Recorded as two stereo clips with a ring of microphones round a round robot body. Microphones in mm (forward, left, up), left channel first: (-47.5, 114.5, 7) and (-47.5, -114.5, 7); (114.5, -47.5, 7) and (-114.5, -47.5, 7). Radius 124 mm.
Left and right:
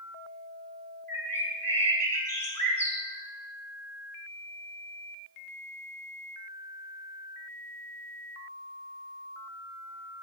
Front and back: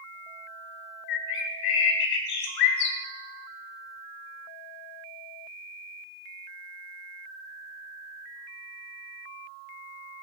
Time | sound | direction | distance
1.1 | a bird | 10° left | 1.7 m